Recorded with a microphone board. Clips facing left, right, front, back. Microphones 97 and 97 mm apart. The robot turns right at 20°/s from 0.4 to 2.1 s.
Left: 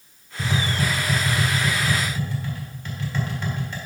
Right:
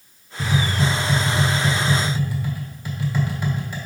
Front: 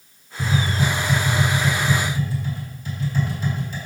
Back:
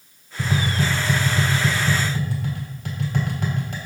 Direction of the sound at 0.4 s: 155° left.